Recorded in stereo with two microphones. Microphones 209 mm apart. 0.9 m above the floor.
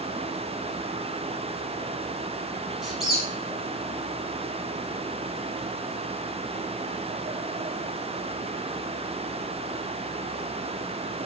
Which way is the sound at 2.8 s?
Centre (ahead or behind).